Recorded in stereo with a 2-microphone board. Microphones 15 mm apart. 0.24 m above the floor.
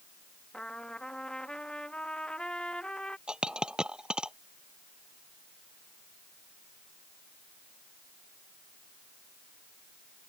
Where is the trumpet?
80° left.